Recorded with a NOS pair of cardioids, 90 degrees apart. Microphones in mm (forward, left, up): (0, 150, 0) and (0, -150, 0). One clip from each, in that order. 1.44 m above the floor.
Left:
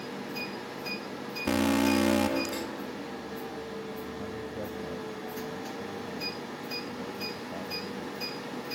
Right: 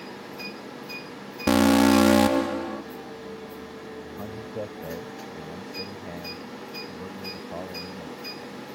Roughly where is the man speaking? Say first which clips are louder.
Right 2 dB; ahead right.